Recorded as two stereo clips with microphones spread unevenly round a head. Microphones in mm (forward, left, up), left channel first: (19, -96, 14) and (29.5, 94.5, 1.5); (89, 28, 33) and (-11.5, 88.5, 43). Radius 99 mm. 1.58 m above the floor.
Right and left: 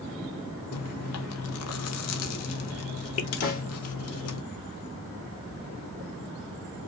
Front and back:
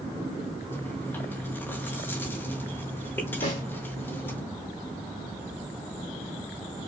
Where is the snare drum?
60° right, 2.5 m.